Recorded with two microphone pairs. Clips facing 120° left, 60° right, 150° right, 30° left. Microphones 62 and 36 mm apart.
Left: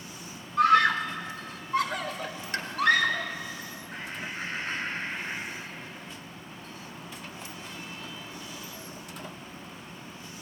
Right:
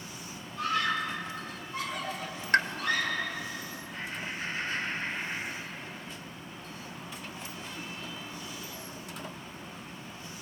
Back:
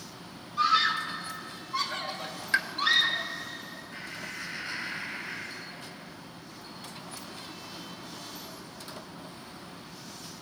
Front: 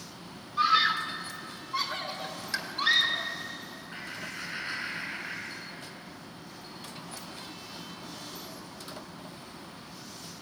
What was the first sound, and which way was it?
A scream, 110° left.